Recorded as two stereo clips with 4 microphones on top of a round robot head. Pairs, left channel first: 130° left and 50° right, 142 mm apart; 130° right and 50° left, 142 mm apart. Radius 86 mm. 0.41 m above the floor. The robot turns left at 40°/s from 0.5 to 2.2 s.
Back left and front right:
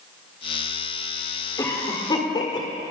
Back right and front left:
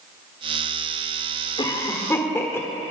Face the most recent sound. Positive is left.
turn(degrees=165)